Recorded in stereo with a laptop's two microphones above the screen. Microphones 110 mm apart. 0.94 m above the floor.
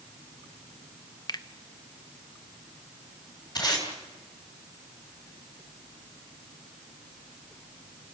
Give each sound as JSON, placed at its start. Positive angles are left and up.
{"t": 1.3, "sound": "a finger snap", "side_deg": 40, "distance_m": 0.8}
{"t": 3.5, "sound": "tape being pulled", "side_deg": 40, "distance_m": 3.5}